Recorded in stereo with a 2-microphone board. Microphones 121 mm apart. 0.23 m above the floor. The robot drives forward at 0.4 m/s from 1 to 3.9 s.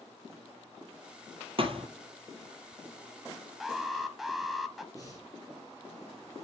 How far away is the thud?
About 1.2 m.